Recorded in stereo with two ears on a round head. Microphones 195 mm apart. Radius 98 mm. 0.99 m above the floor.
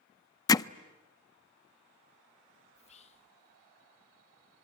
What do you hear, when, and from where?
0.5 s hammering: 20° left (ahead or behind), 0.5 m
2.8 s whispering: 35° left (ahead or behind), 0.8 m